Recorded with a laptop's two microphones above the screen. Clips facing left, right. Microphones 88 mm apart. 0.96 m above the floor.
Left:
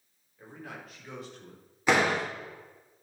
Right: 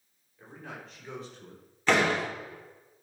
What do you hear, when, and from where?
0.4 s a man speaking: 10° left (ahead or behind), 3.5 m; by 1.6 s 5° right (ahead or behind), 2.5 m
1.9 s a door slam: 15° left (ahead or behind), 2.5 m